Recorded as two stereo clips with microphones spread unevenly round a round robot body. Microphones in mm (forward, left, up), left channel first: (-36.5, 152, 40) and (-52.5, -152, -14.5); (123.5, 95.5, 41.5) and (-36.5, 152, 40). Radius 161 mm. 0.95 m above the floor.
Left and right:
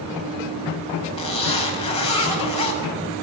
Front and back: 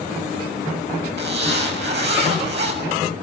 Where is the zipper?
160° left, 7.5 m.